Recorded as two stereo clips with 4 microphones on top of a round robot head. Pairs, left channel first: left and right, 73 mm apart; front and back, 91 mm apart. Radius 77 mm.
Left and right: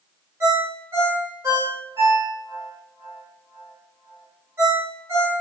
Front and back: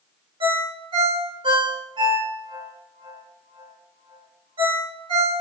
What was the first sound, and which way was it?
A ringtone, 145° right.